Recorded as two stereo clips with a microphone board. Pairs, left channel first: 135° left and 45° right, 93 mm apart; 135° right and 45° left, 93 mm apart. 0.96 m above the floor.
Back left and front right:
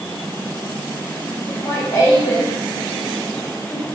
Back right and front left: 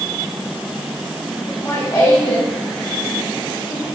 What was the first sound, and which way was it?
Laughter, straight behind.